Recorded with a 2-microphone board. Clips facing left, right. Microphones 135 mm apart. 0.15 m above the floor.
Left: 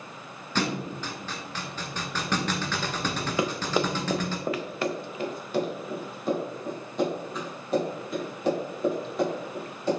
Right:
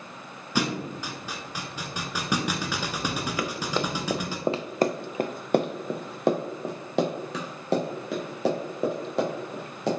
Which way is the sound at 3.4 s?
25° left (ahead or behind).